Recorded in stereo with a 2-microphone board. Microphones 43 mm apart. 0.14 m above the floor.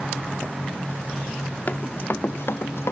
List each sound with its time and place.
1.7 s running footsteps: 35° left (ahead or behind), 2.5 m; by 2.9 s 75° left (ahead or behind), 2.5 m